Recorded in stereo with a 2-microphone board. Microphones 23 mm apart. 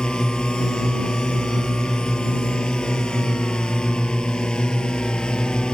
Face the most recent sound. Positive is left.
turn(degrees=45)  # may be behind; listen again after turning